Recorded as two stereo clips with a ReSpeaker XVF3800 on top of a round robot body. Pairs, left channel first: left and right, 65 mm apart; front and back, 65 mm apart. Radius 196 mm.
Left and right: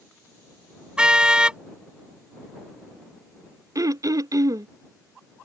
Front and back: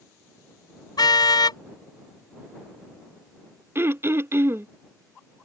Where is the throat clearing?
125° right.